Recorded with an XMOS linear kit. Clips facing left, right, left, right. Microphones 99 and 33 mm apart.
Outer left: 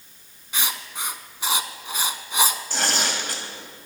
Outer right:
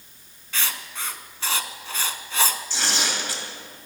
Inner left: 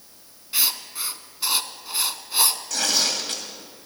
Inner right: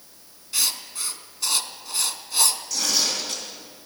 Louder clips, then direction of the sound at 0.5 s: Outer left 1 dB, inner left 1 dB; 15° left (ahead or behind).